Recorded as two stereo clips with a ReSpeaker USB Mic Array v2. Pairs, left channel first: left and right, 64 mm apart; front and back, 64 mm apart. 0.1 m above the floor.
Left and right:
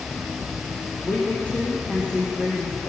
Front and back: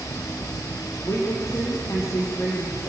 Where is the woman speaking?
25° left, 2.5 m.